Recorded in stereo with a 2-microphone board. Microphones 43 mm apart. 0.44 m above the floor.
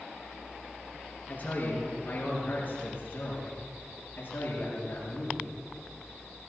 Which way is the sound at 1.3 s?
40° left (ahead or behind).